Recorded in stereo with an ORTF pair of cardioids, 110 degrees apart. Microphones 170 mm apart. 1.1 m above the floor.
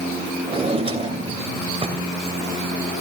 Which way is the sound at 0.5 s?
35° right.